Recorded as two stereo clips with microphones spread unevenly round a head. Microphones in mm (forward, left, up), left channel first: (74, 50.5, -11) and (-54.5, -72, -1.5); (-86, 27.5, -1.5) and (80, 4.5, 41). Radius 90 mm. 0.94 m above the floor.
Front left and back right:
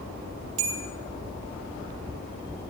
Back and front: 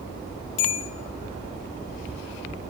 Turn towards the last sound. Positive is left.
turn(degrees=-165)